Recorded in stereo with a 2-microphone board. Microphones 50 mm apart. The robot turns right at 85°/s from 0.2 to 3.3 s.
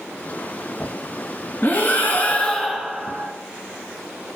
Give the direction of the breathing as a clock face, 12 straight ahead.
10 o'clock.